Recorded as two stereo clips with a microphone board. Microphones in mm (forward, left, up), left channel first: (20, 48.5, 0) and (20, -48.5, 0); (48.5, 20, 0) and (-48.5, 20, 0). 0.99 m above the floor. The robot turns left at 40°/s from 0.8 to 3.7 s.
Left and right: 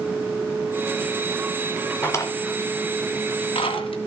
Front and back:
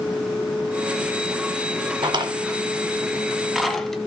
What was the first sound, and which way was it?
A drawer, 155° left.